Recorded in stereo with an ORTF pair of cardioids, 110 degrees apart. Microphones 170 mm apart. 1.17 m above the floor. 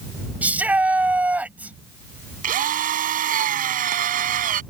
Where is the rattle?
No rattle in this recording.